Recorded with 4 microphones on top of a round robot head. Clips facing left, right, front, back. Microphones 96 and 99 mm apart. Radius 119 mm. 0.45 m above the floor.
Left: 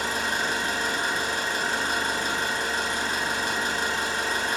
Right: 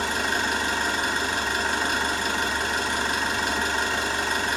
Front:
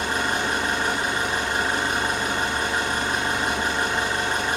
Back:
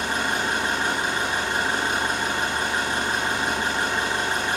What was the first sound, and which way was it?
An engine running, 110° right.